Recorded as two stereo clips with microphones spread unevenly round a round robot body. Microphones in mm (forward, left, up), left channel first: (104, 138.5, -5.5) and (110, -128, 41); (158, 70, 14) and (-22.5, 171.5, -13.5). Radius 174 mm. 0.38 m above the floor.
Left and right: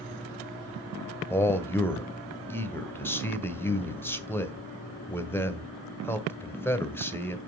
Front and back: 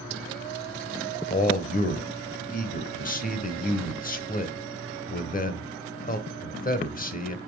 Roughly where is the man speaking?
Ahead.